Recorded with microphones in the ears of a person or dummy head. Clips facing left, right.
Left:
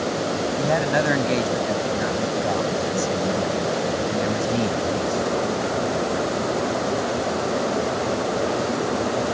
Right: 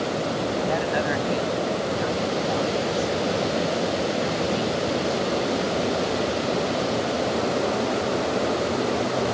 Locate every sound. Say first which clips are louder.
0.6 s a man speaking: left 5 dB; 45° left (ahead or behind)